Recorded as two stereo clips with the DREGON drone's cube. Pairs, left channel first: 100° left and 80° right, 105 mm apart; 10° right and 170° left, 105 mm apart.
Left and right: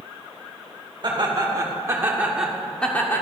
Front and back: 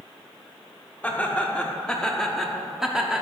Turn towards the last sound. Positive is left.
turn(degrees=100)